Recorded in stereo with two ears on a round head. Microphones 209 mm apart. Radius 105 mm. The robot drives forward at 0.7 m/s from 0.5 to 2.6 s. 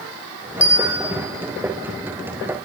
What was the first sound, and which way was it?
A bell, 5° right (ahead or behind).